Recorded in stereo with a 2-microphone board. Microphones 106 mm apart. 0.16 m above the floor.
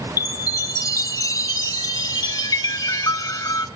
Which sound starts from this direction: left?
A chime, at 0.2 s.